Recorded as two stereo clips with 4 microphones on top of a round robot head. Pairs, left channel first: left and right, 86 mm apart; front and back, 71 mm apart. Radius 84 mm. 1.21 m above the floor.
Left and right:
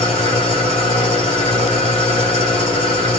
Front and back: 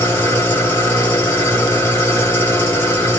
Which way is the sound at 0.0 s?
55° left.